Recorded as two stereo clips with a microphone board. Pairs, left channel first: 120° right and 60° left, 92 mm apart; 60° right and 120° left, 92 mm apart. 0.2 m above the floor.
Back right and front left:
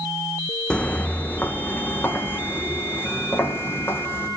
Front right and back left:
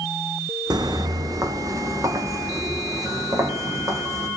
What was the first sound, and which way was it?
Footsteps, 160° left.